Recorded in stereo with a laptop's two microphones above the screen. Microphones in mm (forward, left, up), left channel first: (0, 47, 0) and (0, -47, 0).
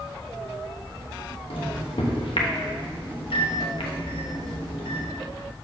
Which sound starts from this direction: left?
A microwave, at 1.5 s.